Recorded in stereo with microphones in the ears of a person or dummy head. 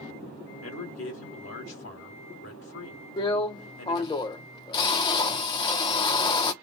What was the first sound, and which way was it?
A man speaking, 80° left.